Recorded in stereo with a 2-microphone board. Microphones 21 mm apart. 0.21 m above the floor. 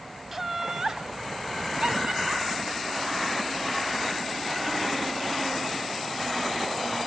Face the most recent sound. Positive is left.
turn(degrees=-70)  # may be behind; listen again after turning